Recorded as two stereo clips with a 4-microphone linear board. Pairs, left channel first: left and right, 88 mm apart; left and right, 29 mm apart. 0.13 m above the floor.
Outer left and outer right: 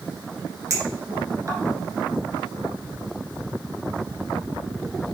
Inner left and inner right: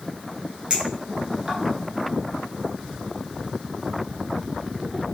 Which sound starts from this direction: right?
A clink, at 0.7 s.